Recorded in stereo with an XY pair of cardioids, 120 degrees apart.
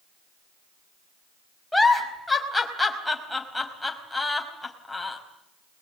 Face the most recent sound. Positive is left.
turn(degrees=5)